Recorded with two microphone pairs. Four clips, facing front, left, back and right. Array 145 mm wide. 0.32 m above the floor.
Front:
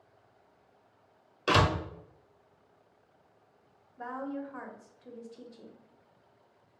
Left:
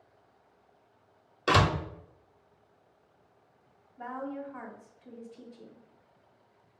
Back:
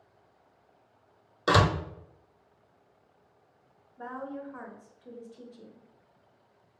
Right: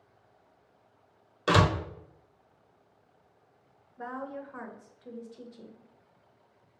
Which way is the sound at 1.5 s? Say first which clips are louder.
Right 1 dB, back 2 dB; 165° left.